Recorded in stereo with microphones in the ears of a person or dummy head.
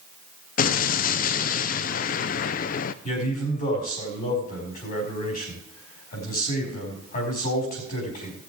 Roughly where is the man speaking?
Left.